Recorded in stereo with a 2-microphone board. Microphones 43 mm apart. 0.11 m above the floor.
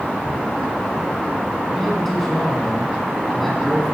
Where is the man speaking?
5° left (ahead or behind), 4.5 m.